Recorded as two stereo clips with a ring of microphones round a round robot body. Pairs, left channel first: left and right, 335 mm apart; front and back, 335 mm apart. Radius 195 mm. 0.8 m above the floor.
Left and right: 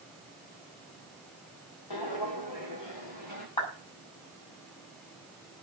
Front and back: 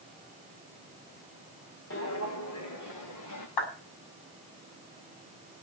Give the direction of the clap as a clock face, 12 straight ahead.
12 o'clock.